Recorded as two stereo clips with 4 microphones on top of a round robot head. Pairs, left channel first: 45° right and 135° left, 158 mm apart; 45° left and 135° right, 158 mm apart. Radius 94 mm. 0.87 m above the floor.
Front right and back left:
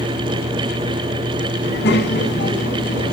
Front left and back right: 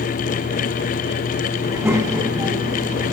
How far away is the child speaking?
About 6.5 m.